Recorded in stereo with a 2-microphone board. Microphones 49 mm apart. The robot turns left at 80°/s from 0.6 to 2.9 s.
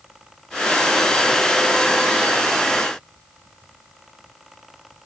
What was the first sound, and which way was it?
Only background noise.